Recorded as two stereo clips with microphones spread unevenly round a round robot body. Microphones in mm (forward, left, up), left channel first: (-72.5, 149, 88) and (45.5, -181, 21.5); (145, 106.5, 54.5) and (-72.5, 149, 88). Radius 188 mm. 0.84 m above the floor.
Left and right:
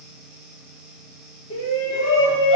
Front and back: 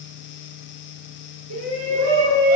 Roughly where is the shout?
Behind.